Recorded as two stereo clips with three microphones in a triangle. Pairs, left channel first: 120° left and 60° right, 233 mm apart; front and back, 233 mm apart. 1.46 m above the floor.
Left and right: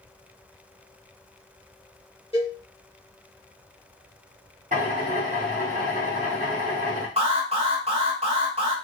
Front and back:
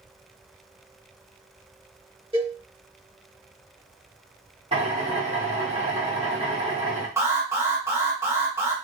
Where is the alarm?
110° right, 0.8 m.